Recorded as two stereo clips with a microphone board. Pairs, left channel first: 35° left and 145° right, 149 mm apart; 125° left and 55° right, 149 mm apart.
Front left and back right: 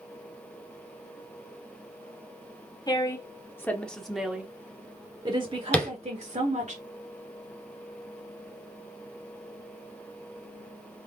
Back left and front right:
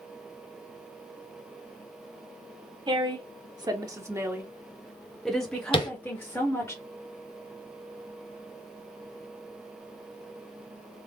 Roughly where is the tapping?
Left.